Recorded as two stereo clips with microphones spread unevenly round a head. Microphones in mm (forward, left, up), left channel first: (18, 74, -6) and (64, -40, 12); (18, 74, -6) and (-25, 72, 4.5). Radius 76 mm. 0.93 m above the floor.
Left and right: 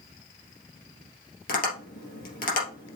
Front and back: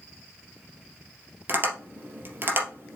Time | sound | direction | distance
1.5 | tapping | 150° left | 3 m